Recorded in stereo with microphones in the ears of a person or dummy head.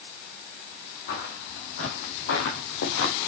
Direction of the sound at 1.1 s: 55° left (ahead or behind).